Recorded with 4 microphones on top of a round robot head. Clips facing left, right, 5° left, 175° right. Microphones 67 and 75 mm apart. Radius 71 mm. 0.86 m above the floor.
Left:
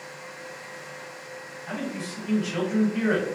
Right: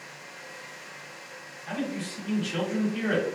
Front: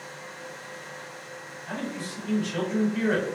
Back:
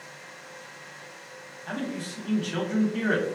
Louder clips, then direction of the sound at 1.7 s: Right 1 dB, back 1 dB; 165° left.